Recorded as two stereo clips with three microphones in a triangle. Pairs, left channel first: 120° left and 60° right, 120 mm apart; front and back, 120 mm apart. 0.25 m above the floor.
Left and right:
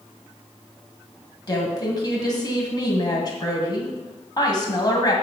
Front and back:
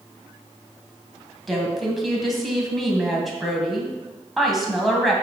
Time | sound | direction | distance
1.5 | a woman speaking | 90° left | 1.9 m